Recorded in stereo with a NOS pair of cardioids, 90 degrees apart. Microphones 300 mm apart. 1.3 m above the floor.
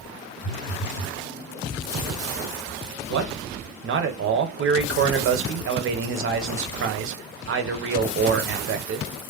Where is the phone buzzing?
50° left, 1.8 m.